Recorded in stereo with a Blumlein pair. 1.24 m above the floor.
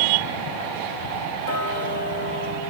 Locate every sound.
1.4 s ticking: 50° left, 2 m